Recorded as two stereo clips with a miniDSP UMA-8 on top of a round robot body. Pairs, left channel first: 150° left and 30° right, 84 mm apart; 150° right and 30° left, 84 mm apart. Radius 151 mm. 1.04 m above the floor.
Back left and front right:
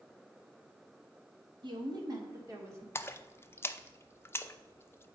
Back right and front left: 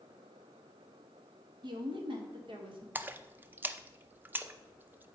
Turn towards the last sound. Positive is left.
turn(degrees=95)